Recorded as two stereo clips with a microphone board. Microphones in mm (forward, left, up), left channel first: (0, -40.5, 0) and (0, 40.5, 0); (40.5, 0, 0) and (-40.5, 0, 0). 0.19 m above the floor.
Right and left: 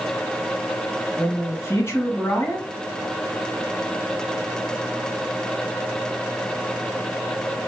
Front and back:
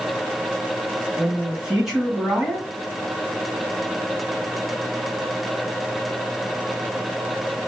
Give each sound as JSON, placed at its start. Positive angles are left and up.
{"t": 1.2, "sound": "a man speaking", "azimuth_deg": -105, "distance_m": 1.7}